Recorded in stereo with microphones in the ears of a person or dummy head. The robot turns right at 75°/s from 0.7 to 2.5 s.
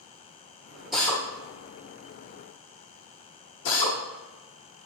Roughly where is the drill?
Centre.